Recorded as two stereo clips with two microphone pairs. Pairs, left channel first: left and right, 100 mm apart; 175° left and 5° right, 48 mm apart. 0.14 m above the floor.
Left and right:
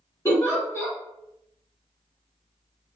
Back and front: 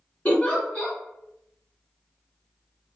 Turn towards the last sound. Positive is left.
turn(degrees=140)